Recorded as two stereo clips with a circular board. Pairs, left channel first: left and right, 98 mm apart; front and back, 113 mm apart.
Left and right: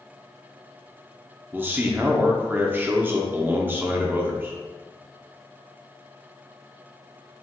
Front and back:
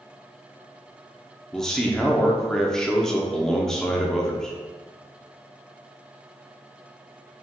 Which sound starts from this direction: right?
A man speaking, at 1.5 s.